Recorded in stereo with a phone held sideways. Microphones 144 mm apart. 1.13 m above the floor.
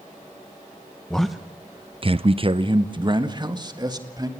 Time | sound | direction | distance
1.1 | a man speaking | 5° left (ahead or behind) | 1.0 m